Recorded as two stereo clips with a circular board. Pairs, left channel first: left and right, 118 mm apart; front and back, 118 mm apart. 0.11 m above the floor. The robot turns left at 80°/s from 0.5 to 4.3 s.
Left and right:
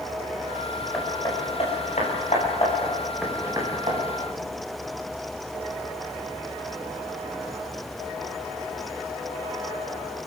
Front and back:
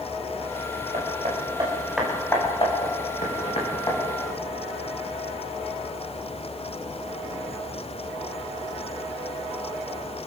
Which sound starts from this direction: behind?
Hammering, at 0.9 s.